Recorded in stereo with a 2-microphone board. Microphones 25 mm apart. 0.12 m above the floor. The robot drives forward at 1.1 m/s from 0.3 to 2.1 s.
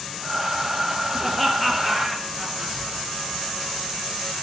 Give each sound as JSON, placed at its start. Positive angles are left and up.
{"t": 1.2, "sound": "laughter", "side_deg": 5, "distance_m": 2.5}